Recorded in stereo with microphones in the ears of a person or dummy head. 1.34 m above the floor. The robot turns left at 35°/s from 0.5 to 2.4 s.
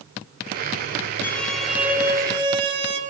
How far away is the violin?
About 1.5 m.